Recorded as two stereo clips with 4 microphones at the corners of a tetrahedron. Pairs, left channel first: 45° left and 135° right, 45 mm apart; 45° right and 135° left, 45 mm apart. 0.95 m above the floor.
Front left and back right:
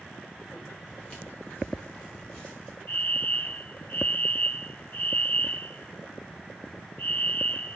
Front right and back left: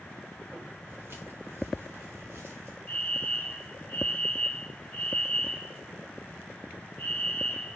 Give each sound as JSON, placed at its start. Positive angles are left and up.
{"t": 0.9, "sound": "footsteps", "azimuth_deg": 100, "distance_m": 7.5}
{"t": 2.9, "sound": "a fire alarm", "azimuth_deg": 15, "distance_m": 4.0}